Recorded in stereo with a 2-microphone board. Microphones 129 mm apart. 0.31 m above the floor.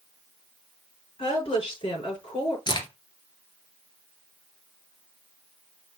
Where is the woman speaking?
40° left (ahead or behind), 4.5 m.